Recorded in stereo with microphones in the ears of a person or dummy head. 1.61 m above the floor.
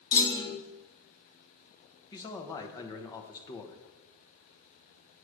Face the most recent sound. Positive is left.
turn(degrees=20)  # may be behind; listen again after turning